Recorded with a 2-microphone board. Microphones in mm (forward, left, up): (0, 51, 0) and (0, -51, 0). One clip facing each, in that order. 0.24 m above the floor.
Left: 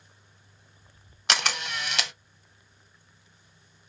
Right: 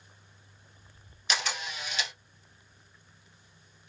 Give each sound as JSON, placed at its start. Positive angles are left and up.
{"t": 1.3, "sound": "a camera shutter", "side_deg": 80, "distance_m": 0.8}